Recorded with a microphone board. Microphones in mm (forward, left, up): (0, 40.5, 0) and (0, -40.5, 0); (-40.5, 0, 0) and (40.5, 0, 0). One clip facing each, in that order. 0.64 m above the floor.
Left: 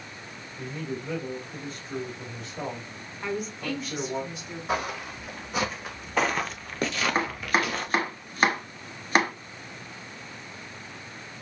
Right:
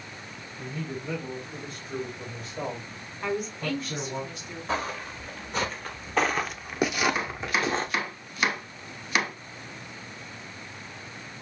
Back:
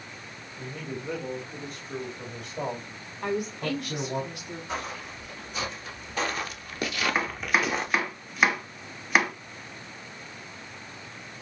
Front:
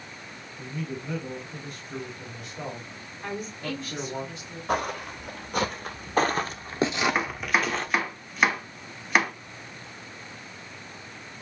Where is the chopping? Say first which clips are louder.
Left 3 dB, even; 95° left, 1.0 m.